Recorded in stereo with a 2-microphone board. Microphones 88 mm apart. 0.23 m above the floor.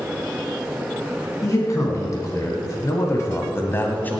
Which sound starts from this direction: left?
A man speaking, at 1.4 s.